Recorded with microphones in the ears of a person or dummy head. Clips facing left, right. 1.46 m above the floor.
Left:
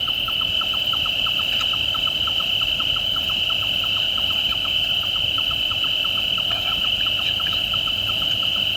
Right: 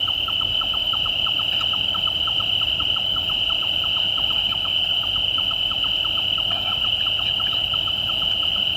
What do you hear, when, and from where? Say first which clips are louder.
0.0 s an insect: even; 25° left (ahead or behind)